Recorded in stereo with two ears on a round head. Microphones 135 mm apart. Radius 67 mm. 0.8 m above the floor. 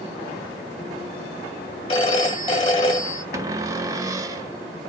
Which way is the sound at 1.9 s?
35° left (ahead or behind).